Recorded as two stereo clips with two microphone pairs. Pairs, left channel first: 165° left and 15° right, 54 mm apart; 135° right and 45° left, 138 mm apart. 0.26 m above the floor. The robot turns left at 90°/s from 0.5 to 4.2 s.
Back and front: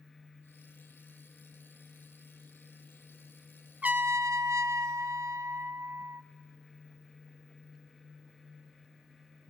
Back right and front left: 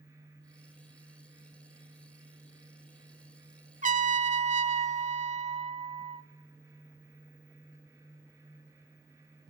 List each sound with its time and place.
3.8 s a trumpet: 50° left, 0.7 m; by 6.2 s 15° left, 0.7 m